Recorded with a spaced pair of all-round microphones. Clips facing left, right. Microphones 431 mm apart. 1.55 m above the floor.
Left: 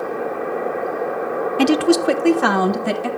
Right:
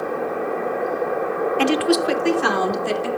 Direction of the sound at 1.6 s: 55° left (ahead or behind).